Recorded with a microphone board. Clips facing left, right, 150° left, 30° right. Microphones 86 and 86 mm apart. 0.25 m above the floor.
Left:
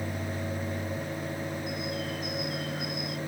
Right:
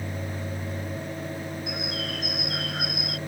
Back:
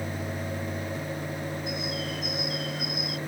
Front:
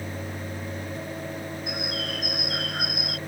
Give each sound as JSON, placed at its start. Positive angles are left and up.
{"t": 1.7, "sound": "a bird", "azimuth_deg": -65}